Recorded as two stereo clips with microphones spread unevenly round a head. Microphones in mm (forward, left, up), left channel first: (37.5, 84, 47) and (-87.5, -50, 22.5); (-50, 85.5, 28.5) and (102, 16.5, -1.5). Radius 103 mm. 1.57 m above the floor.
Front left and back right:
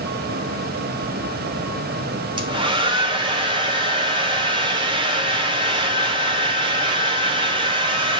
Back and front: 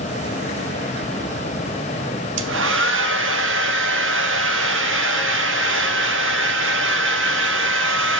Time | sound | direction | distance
2.4 | a hair dryer | 65° right | 0.7 m